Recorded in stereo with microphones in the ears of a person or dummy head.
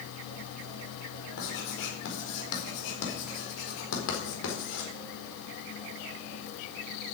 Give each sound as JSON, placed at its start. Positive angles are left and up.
{"t": 1.4, "sound": "writing", "side_deg": 70, "distance_m": 4.0}